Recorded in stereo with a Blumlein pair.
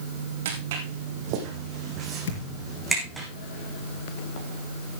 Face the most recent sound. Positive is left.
turn(degrees=50)